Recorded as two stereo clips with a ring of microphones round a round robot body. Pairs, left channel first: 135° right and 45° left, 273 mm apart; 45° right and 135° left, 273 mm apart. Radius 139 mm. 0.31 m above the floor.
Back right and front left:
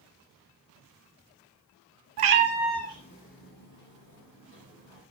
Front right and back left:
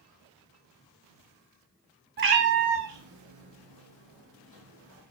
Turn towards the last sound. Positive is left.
turn(degrees=180)